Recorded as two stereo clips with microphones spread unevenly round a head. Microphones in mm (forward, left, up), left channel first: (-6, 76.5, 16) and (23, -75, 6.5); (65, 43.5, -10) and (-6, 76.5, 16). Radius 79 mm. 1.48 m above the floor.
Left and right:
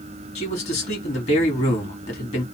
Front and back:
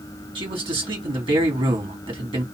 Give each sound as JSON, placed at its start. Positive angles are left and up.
{"t": 0.3, "sound": "a man speaking", "azimuth_deg": 150, "distance_m": 3.0}